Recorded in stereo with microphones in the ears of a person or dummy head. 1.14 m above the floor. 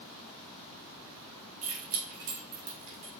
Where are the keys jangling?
30° right (ahead or behind), 0.8 m; by 3.1 s 80° right, 1.1 m.